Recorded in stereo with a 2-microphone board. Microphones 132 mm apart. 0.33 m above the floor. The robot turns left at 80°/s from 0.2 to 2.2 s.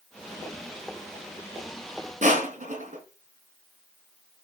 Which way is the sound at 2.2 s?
75° right (ahead or behind).